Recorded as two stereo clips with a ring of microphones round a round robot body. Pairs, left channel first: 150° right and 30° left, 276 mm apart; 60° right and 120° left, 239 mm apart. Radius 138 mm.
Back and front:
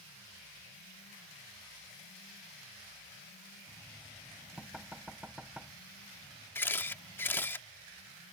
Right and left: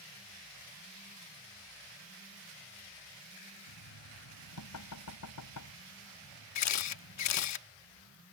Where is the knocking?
55° right.